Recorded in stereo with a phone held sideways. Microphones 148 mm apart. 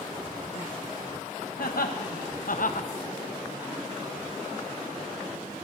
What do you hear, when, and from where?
1.6 s laughter: 75° left (ahead or behind), 1.5 m; by 2.9 s 55° left (ahead or behind), 0.7 m